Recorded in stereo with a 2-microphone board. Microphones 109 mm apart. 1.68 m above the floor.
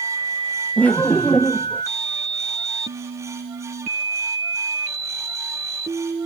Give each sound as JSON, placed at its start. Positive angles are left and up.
{"t": 0.8, "sound": "laughter", "side_deg": 15, "distance_m": 0.6}